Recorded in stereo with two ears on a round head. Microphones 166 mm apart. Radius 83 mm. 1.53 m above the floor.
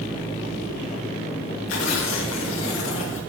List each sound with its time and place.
1.7 s tearing paper: 85° left, 2.5 m